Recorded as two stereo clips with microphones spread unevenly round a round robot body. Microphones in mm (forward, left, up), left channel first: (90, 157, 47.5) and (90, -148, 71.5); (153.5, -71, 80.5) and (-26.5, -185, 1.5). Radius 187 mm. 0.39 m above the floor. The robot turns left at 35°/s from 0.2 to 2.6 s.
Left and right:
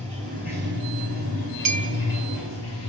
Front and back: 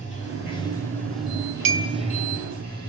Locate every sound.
0.0 s running water: 170° left, 6.5 m; by 2.9 s 90° left, 6.5 m
1.6 s a clink: 135° right, 1.9 m; by 1.9 s 145° right, 1.9 m